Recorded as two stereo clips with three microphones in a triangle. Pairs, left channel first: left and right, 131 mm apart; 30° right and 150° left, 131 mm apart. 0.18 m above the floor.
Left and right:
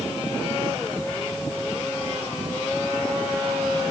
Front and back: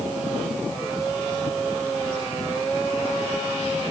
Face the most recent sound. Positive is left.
No sound to turn to.